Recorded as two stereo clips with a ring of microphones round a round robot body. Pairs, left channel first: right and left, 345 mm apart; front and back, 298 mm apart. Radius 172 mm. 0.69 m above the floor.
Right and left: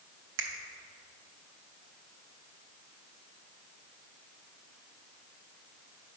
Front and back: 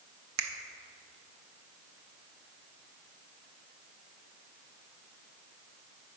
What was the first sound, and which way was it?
A finger snap, 145° left.